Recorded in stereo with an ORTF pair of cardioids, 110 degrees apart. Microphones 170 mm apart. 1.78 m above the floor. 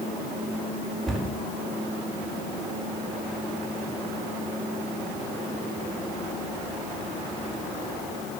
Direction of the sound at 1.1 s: Straight ahead.